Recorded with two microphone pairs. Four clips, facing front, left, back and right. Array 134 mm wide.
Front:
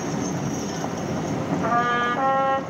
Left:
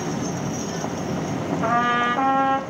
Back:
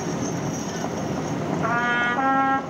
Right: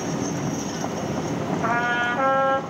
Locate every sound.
1.6 s a trumpet: 80° left, 1.2 m